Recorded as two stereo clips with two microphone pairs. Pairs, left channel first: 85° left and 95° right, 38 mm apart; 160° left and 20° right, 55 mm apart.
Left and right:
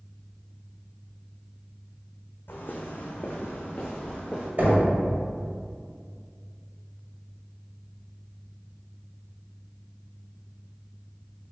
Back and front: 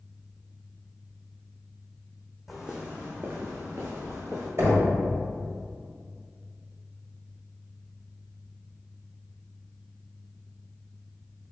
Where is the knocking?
55° right, 1.5 m.